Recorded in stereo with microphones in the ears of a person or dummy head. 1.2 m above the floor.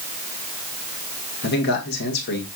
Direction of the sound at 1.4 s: 60° left (ahead or behind).